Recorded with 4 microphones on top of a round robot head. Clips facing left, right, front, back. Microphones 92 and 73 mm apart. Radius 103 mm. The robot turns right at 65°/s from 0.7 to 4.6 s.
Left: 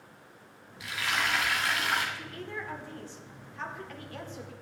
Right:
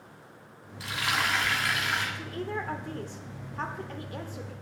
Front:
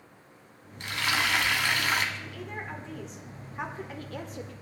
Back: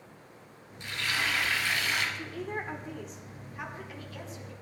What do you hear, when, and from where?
0.8 s frying: 35° right, 2.5 m; by 2.0 s 45° left, 2.5 m
2.1 s a woman speaking: 150° right, 1.4 m; by 4.5 s straight ahead, 1.4 m